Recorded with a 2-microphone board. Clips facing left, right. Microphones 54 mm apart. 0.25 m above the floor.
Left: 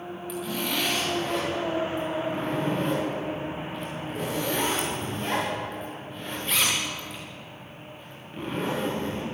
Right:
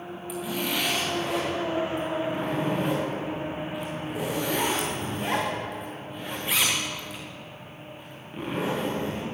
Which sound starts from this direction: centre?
A zipper, at 0.3 s.